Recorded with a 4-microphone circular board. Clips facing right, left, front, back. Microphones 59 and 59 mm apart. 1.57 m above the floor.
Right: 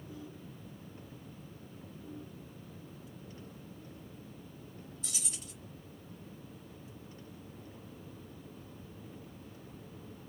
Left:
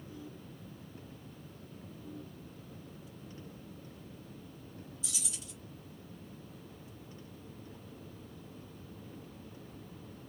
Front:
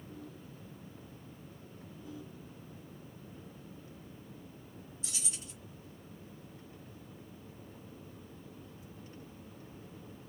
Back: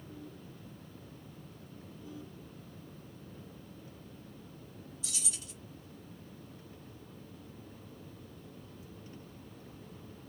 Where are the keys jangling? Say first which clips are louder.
Right 1 dB, even; 50° right, 1.2 m.